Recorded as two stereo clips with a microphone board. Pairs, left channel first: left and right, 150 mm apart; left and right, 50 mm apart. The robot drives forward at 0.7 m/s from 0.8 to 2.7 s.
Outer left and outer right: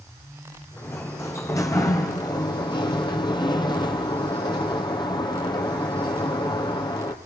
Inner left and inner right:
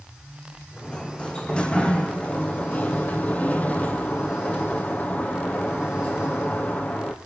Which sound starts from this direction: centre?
A sliding door, at 0.8 s.